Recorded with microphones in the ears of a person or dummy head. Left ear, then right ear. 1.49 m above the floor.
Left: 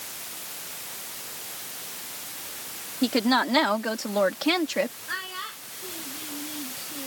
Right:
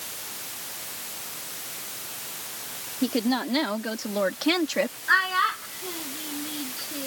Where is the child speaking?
45° right (ahead or behind).